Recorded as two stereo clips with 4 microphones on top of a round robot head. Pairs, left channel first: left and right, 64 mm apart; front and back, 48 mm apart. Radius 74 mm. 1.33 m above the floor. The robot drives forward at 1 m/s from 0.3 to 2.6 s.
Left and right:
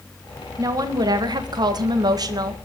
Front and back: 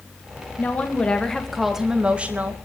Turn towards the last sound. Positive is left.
turn(degrees=-120)